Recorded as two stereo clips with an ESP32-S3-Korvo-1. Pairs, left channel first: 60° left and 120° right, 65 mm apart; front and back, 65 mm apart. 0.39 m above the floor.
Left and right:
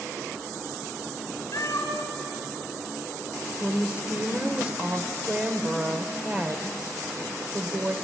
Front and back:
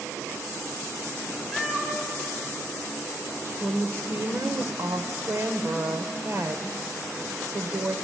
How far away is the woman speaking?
About 1.2 m.